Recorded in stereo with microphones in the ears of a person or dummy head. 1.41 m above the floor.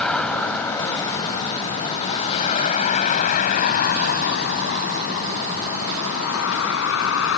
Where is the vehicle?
5° left (ahead or behind); by 7.4 s 80° left.